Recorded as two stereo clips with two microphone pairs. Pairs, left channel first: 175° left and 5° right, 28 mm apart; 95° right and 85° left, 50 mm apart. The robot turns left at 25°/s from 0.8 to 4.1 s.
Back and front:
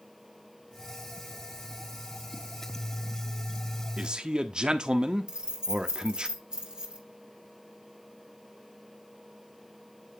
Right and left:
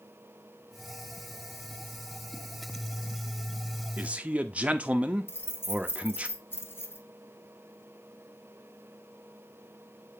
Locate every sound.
4.0 s a man speaking: 35° left, 0.9 m
5.3 s keys jangling: 60° right, 1.8 m